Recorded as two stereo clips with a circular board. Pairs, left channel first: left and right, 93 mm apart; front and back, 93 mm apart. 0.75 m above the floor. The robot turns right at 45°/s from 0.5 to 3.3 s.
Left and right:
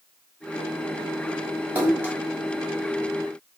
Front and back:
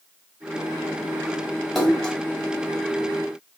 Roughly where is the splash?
Right.